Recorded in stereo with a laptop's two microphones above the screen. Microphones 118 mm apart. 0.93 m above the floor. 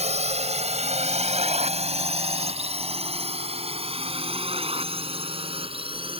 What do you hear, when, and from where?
0.0 s a drone: 75° right (ahead or behind); by 6.2 s 55° right (ahead or behind)